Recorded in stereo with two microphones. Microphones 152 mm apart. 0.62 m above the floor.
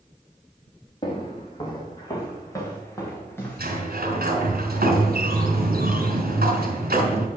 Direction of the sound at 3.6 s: 80° right.